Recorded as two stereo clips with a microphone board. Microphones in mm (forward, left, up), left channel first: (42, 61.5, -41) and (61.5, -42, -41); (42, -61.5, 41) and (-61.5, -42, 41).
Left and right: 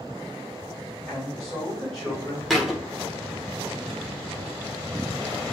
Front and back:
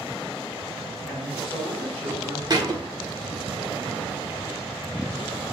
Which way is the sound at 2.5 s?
170° right.